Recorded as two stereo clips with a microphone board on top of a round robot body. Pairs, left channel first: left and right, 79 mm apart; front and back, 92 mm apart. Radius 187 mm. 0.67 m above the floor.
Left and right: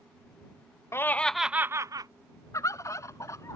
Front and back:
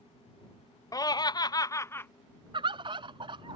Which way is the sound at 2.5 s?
145° left.